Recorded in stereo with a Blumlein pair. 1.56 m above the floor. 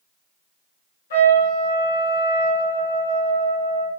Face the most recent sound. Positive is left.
turn(degrees=60)